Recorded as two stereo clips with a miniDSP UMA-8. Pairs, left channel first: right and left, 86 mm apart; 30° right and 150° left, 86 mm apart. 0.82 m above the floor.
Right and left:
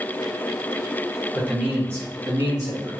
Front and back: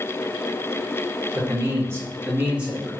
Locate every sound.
1.4 s a man speaking: 175° left, 0.9 m; by 2.9 s 70° left, 1.2 m